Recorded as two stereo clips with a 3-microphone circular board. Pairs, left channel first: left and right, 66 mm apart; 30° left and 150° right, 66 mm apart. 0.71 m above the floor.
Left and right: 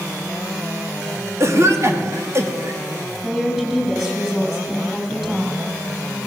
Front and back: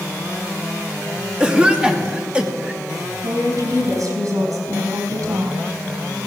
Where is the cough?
80° right, 1.5 m.